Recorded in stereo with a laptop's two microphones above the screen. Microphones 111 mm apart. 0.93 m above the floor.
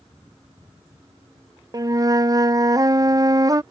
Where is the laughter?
I don't hear laughter.